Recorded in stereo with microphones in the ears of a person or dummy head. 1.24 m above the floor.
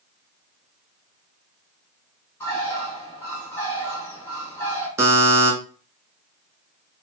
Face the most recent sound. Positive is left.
turn(degrees=-15)  # may be behind; listen again after turning